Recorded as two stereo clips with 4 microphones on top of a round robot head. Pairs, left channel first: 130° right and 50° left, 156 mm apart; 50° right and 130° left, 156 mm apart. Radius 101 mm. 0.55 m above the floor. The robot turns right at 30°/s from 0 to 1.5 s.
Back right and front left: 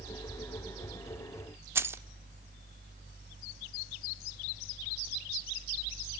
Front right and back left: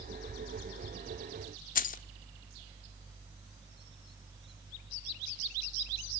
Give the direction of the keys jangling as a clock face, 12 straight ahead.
1 o'clock.